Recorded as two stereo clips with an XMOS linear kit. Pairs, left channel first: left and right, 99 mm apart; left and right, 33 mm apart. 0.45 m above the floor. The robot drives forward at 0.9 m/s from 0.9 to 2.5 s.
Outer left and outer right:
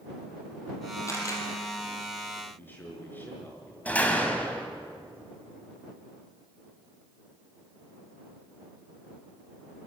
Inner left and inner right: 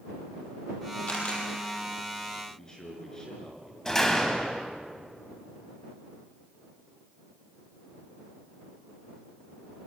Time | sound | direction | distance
1.1 | a camera shutter | 30° left (ahead or behind) | 5.5 m
2.5 | a man speaking | 20° left (ahead or behind) | 5 m
3.9 | a door slam | 15° left (ahead or behind) | 2.5 m